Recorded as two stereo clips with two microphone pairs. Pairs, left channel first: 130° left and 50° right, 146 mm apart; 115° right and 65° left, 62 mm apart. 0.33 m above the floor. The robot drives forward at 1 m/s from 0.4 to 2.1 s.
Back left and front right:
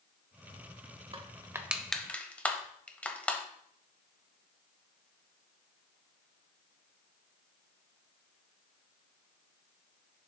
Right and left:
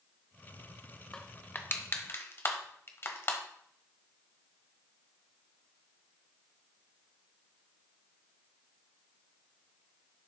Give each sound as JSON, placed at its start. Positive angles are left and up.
{"t": 1.1, "sound": "crushing", "azimuth_deg": -50, "distance_m": 0.8}